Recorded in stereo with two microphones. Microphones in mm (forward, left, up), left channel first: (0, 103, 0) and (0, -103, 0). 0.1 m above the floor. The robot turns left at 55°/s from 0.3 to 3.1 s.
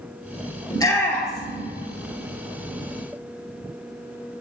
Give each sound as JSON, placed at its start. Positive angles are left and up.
{"t": 0.7, "sound": "a shout", "side_deg": 20, "distance_m": 2.0}